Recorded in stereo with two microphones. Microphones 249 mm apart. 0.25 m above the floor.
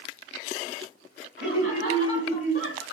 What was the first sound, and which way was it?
Laughter, 50° left (ahead or behind).